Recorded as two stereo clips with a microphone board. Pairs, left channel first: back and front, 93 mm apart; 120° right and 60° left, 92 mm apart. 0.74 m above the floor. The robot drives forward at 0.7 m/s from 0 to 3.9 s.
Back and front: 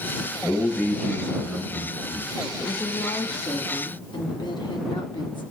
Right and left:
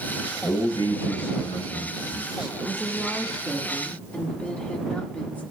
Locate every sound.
0.4 s a man speaking: 105° right, 8 m; by 2.5 s 115° right, 8.5 m
2.6 s a woman speaking: 145° left, 0.8 m; by 5.4 s 165° left, 1.5 m